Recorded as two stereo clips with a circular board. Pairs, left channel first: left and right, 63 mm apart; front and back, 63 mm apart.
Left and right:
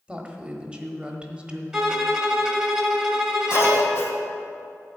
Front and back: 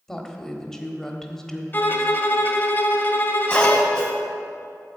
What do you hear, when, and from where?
0.1 s a woman speaking: 65° right, 1.1 m
1.7 s a violin: 15° right, 1.3 m
3.5 s a cough: 75° left, 2 m